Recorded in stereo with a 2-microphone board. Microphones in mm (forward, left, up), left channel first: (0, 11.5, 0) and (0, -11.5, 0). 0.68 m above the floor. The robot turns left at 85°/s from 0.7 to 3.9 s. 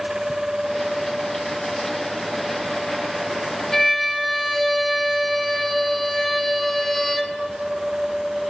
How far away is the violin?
About 0.8 m.